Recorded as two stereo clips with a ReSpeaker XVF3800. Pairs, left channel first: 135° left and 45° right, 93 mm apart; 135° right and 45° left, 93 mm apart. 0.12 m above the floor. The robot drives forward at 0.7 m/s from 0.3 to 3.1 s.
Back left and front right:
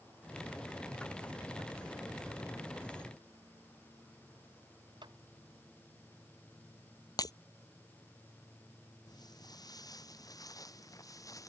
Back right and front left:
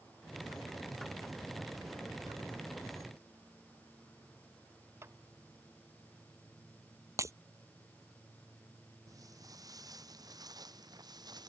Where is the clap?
15° right.